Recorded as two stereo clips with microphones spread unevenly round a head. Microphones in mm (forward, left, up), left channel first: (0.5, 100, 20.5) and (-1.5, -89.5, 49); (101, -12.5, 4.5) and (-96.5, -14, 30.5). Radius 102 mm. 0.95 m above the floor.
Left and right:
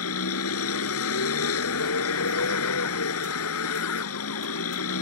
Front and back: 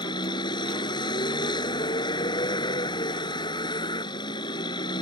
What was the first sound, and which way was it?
A vehicle, 75° left.